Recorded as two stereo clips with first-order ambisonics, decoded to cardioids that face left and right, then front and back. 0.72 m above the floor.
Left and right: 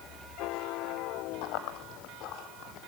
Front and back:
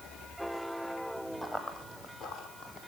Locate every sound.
1.4 s running footsteps: 80° left, 1.4 m; by 2.9 s 35° left, 2 m